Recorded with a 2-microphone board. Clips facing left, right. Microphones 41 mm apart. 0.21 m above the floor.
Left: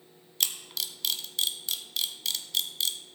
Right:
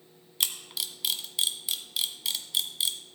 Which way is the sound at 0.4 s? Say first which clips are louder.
Right 1 dB; 10° right (ahead or behind).